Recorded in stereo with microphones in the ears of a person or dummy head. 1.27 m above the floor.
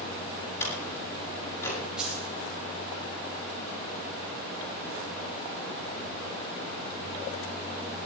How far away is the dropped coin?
About 9 m.